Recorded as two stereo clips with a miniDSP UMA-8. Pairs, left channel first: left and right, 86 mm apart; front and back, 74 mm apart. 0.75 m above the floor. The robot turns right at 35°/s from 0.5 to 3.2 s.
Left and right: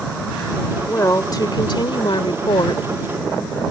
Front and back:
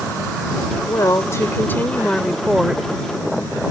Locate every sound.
0.9 s a woman speaking: 35° left; by 2.8 s 105° left